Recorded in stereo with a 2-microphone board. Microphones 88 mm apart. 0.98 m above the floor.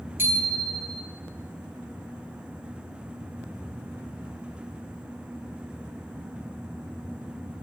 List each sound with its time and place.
0.2 s a bicycle bell: 25° right (ahead or behind), 4.5 m